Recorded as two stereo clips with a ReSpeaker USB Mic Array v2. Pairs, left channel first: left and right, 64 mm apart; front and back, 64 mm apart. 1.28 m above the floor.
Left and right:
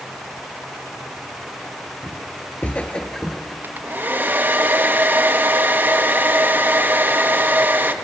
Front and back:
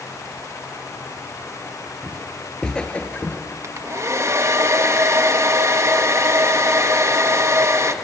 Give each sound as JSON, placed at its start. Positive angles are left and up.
{"t": 2.0, "sound": "footsteps", "azimuth_deg": 85, "distance_m": 1.5}
{"t": 3.6, "sound": "a hair dryer", "azimuth_deg": -145, "distance_m": 0.9}